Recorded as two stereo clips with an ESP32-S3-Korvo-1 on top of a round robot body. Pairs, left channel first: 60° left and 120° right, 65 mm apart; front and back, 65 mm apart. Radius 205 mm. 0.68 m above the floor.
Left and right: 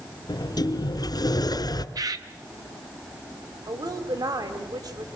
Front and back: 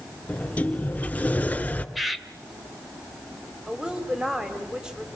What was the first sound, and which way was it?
A sliding door, 65° left.